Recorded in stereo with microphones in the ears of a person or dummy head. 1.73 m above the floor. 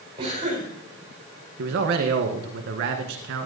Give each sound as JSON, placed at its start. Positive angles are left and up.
{"t": 0.2, "sound": "a cough", "side_deg": -20, "distance_m": 5.5}
{"t": 1.6, "sound": "a man speaking", "side_deg": -50, "distance_m": 1.7}